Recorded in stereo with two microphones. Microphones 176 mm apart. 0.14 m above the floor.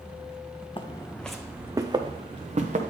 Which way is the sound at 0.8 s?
30° left (ahead or behind).